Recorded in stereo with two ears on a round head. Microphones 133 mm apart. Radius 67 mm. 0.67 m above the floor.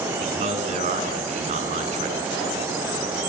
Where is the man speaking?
50° right (ahead or behind), 7.5 m.